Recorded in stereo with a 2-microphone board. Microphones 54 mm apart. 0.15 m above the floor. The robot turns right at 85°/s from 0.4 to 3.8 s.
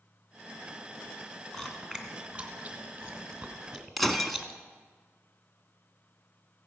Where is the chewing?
5° left (ahead or behind), 1.4 m; by 4.6 s centre (ahead or behind), 1.4 m.